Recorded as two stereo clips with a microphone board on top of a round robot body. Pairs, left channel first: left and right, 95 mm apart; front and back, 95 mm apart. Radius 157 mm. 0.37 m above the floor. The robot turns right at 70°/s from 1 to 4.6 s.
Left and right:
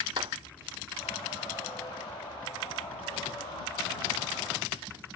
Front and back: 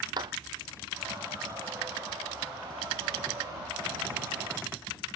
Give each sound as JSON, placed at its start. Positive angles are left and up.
{"t": 0.2, "sound": "a clap", "azimuth_deg": -135}